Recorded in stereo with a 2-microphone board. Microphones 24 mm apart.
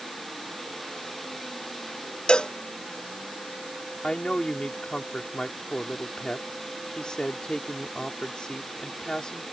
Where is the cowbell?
40° left (ahead or behind).